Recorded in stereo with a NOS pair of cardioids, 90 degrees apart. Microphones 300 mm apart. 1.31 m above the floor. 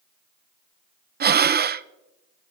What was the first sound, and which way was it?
Breathing, 35° right.